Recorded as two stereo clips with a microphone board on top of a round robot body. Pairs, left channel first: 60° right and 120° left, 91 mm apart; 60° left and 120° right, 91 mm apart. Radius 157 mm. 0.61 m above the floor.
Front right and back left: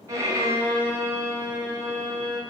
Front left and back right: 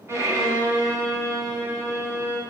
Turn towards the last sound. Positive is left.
turn(degrees=180)